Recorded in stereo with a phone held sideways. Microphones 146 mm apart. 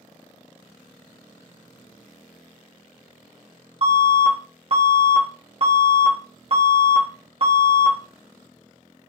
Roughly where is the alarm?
Right.